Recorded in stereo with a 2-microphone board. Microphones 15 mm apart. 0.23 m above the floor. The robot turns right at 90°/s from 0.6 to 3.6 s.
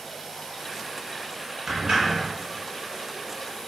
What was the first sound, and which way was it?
A sliding door, 100° right.